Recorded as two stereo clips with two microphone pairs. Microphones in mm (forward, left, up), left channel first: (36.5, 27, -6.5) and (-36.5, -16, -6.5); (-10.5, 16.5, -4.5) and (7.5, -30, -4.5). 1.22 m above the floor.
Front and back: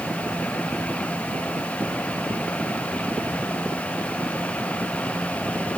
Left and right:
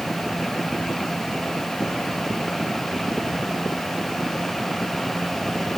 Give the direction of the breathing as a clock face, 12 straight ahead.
No breathing in this recording.